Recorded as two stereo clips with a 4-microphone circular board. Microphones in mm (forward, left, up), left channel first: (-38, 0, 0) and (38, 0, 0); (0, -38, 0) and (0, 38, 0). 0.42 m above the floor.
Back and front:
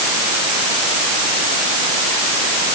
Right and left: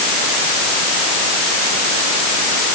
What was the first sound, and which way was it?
Only background noise.